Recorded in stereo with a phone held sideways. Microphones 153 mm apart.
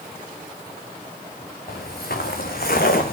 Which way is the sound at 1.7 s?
75° left (ahead or behind).